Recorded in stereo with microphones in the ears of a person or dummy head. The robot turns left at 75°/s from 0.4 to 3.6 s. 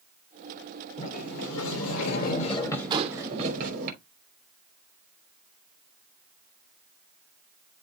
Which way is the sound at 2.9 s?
20° right (ahead or behind).